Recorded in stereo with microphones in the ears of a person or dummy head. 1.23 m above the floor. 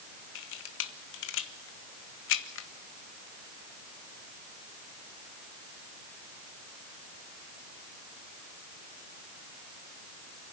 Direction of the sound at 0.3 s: 65° left (ahead or behind).